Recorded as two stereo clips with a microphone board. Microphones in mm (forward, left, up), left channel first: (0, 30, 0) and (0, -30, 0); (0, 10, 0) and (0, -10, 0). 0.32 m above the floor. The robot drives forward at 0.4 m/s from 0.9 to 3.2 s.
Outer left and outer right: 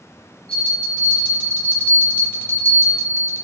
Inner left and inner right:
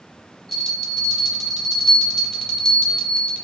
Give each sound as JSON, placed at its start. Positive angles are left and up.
{"t": 0.5, "sound": "a bell", "side_deg": 20, "distance_m": 1.2}